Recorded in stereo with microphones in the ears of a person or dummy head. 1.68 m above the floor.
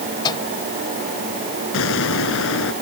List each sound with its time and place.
0.2 s a microwave: 25° left (ahead or behind)
1.7 s an explosion: 65° left (ahead or behind)